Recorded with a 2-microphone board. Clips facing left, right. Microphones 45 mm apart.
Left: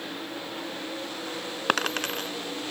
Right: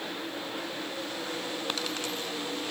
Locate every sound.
1.7 s a dropped coin: 70° left (ahead or behind)